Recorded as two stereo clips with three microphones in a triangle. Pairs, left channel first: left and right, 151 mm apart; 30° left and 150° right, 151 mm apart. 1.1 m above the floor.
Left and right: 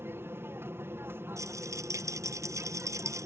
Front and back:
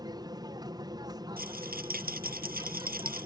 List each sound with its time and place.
0.0 s an aircraft: 145° right
1.4 s a rattle: 160° right